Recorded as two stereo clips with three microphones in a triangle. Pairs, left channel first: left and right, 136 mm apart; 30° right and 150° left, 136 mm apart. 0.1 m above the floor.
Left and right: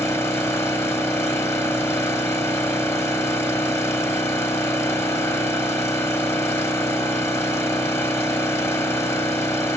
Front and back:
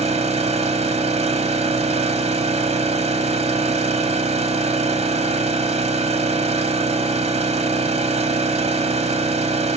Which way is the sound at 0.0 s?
155° left.